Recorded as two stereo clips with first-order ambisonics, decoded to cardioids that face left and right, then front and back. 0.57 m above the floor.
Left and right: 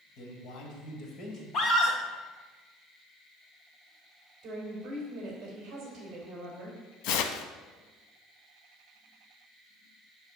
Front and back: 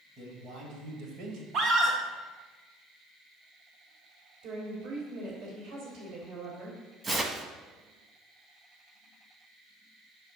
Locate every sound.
0.2 s a man speaking: 120° left, 2.5 m; by 1.4 s 155° left, 2 m
1.5 s a scream: 135° left, 1.7 m
4.4 s a woman speaking: 145° right, 3 m
7.0 s tearing paper: 105° left, 0.8 m